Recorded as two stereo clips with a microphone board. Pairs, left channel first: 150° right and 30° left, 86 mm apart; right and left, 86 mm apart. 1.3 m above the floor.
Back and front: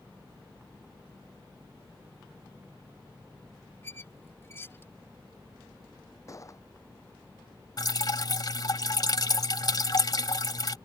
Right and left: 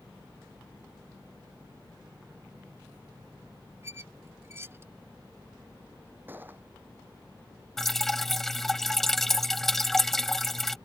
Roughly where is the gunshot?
Behind left.